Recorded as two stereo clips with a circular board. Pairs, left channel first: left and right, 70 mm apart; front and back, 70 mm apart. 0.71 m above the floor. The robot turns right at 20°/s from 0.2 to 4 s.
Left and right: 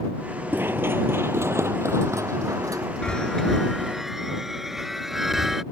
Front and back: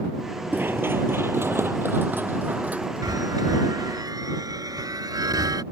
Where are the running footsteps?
135° right; by 4.0 s 95° right.